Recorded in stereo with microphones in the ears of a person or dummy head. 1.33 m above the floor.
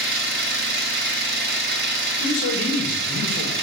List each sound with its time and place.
0.0 s an engine running: 60° right (ahead or behind), 0.7 m
2.2 s a man speaking: 50° left (ahead or behind), 3 m